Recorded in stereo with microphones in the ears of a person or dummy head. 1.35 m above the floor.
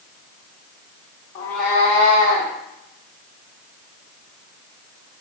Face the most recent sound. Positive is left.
turn(degrees=-60)  # may be behind; listen again after turning